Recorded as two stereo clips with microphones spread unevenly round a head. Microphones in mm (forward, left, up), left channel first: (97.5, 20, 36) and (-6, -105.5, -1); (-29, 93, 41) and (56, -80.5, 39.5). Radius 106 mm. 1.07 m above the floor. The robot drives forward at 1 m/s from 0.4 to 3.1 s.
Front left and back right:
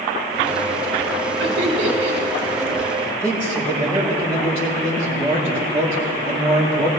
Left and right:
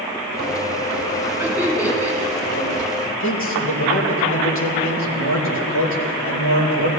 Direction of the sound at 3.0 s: 130° left.